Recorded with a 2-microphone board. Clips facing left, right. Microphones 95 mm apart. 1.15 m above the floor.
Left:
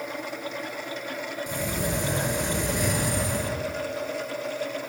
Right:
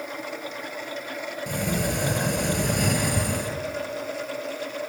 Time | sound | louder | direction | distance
1.5 | a sliding door | right 3 dB | 60° right (ahead or behind) | 7.5 m